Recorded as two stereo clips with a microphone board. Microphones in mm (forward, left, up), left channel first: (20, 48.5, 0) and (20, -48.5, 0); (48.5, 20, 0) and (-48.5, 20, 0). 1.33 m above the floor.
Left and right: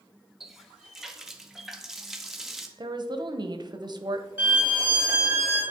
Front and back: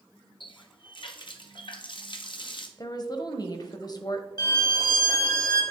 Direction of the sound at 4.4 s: 15° right.